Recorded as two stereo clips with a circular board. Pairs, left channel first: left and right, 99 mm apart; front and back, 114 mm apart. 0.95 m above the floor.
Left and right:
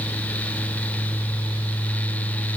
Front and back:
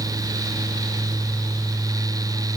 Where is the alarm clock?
No alarm clock in this recording.